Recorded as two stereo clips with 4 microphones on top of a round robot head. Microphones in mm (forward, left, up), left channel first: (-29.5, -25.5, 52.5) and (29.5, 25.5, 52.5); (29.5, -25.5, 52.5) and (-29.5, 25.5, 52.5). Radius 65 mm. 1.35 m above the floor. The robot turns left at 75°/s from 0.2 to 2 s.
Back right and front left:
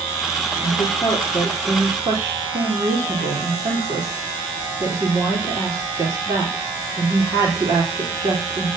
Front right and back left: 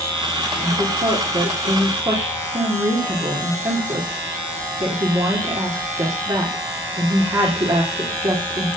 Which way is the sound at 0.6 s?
165° right.